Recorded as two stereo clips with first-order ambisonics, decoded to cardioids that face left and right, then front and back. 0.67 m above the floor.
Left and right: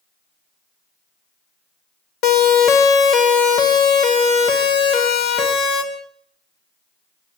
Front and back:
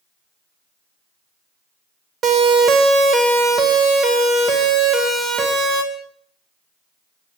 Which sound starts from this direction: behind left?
A siren, at 2.2 s.